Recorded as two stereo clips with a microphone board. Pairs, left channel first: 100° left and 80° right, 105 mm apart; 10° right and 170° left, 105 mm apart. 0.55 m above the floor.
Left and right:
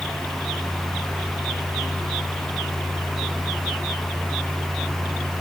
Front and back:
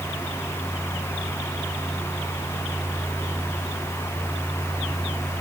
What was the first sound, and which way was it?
Only background noise.